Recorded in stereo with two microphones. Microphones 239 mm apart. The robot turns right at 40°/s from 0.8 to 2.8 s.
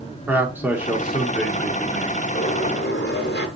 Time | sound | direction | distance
0.3 | a man speaking | 10° right (ahead or behind) | 0.8 m
2.4 | a sliding door | 30° left (ahead or behind) | 1.1 m